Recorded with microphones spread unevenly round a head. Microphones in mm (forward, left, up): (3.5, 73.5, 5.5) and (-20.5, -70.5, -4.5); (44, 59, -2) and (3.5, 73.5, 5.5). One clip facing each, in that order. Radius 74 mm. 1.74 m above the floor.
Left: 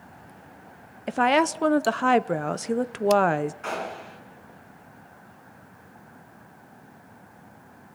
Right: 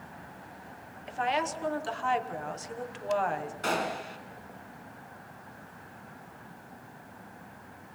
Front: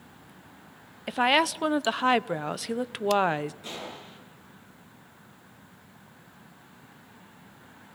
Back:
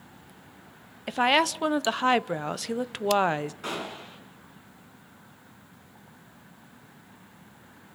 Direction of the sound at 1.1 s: 70° left.